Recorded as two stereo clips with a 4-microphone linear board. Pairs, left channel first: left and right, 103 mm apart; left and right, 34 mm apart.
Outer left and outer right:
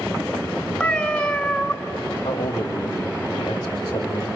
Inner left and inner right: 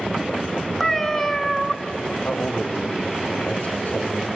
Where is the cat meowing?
10° left (ahead or behind), 1.4 m.